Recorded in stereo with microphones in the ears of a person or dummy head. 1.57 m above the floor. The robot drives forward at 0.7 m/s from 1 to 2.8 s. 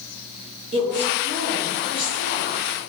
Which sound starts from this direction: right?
A woman speaking, at 0.7 s.